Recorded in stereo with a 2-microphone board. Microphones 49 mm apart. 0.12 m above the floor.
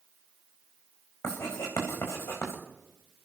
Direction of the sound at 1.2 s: 70° left (ahead or behind).